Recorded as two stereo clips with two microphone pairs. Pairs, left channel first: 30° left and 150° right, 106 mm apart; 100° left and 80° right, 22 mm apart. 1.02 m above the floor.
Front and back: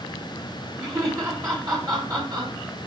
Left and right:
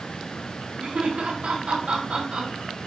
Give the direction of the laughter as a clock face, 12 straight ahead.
3 o'clock.